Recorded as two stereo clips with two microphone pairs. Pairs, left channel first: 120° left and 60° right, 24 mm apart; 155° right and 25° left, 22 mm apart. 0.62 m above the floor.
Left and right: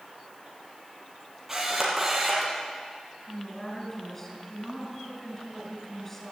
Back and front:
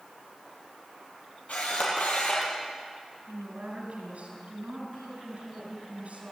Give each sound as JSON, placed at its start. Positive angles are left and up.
{"t": 1.5, "sound": "a camera shutter", "azimuth_deg": -135, "distance_m": 6.0}
{"t": 3.3, "sound": "a woman speaking", "azimuth_deg": 50, "distance_m": 7.0}